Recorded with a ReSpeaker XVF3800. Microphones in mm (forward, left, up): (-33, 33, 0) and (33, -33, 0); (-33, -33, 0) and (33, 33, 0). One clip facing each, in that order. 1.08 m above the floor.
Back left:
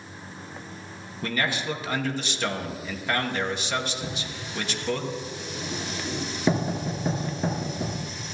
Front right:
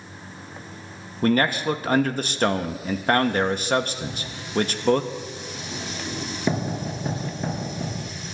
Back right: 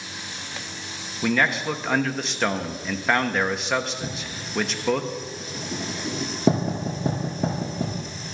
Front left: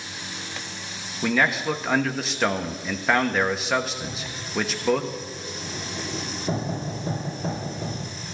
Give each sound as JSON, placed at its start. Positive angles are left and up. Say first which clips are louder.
{"t": 1.2, "sound": "a man speaking", "louder": "front right 8 dB, even", "azimuth_deg": -45, "distance_m": 0.9}
{"t": 4.0, "sound": "writing", "louder": "front right 1 dB, back right 1 dB", "azimuth_deg": -140, "distance_m": 5.0}